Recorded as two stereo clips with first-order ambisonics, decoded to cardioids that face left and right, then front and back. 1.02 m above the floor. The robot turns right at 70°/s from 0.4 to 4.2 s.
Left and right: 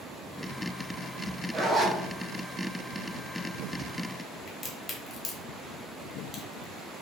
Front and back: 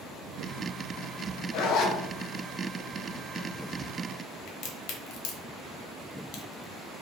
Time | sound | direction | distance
1.5 | a zipper | 10° right | 0.6 m
4.5 | a crack | 15° left | 0.8 m